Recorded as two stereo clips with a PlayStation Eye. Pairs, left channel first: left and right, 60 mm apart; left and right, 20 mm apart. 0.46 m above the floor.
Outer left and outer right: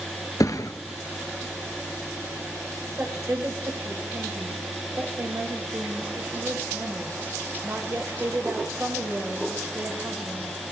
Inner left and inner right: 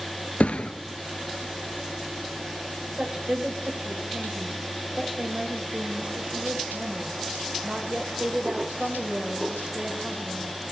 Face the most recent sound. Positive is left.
turn(degrees=-50)  # may be behind; listen again after turning